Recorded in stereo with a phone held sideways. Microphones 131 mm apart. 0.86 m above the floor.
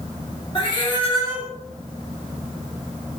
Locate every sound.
0.6 s a cat meowing: 40° left (ahead or behind), 0.8 m